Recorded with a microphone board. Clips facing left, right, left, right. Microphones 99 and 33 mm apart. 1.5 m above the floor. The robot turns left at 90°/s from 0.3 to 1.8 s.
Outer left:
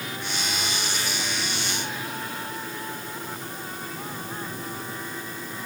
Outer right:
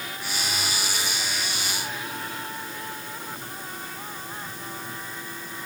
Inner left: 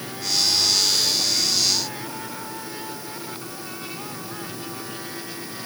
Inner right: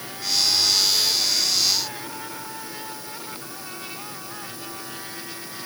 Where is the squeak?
No squeak in this recording.